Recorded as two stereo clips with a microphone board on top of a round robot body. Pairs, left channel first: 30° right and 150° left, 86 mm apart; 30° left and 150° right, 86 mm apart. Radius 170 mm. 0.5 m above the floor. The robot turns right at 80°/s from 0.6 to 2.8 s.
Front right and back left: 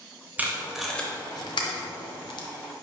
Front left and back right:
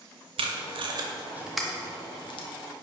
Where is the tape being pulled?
140° right, 0.6 m; by 2.5 s 10° left, 0.6 m.